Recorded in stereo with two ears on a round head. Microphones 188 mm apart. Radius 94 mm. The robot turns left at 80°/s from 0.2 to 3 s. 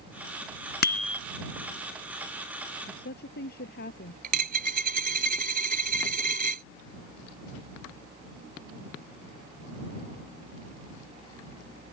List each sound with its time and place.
0.8 s a bicycle bell: 50° left; by 1.2 s 20° left
2.9 s a woman speaking: 40° left (ahead or behind); by 4.1 s 50° left (ahead or behind)
4.2 s a dropped coin: 45° right (ahead or behind)